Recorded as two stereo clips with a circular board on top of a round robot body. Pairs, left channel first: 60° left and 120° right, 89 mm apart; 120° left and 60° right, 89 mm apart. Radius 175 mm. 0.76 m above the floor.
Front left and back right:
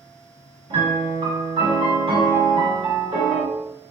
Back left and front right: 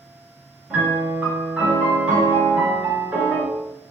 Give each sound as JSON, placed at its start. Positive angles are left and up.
{"t": 0.7, "sound": "a piano", "azimuth_deg": -135, "distance_m": 2.5}